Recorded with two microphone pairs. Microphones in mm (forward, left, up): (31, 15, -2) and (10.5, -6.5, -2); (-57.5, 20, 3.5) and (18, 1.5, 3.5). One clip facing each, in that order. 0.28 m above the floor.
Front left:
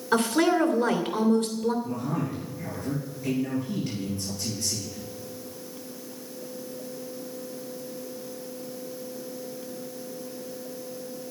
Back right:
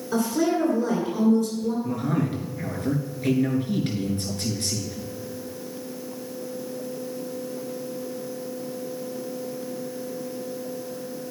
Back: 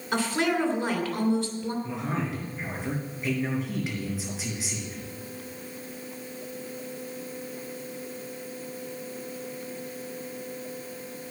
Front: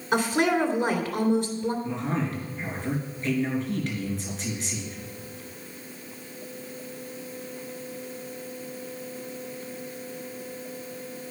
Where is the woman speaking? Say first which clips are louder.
Front left 1 dB, front 3 dB; 60° left, 3 m.